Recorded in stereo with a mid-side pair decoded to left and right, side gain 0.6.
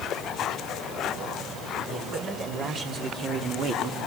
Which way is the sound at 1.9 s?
50° right.